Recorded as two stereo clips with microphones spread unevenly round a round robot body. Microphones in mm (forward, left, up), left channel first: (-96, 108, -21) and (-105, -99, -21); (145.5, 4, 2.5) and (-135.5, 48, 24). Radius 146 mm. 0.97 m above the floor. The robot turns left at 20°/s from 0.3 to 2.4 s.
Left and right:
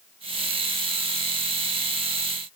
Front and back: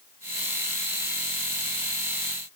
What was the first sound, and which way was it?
Only background noise.